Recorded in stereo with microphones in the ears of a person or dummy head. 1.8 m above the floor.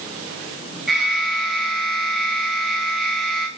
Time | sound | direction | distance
0.9 | an alarm | centre (ahead or behind) | 3.5 m